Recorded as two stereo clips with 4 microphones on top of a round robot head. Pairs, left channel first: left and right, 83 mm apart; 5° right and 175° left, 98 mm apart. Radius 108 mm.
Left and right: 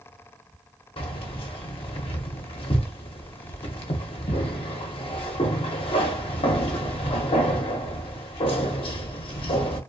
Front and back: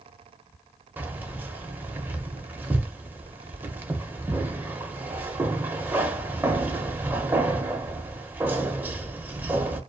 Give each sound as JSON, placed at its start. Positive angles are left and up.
{"t": 1.0, "sound": "keys jangling", "azimuth_deg": 100, "distance_m": 0.6}